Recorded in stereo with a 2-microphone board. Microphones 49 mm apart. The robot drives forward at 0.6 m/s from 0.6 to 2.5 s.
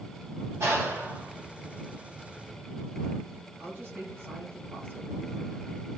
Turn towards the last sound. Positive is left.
turn(degrees=-45)  # may be behind; listen again after turning